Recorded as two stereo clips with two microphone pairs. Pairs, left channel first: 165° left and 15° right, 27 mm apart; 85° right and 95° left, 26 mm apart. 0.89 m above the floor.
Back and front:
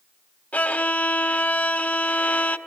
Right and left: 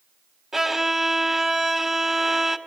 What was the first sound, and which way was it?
A violin, 165° left.